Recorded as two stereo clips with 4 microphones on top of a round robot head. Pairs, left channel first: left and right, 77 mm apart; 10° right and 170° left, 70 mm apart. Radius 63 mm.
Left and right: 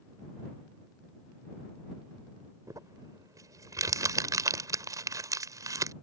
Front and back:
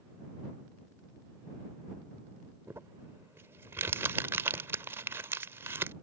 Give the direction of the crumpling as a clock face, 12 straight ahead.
4 o'clock.